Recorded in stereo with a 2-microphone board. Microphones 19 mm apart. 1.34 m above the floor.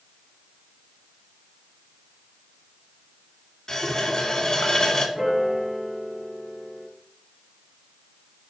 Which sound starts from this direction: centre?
A piano, at 5.2 s.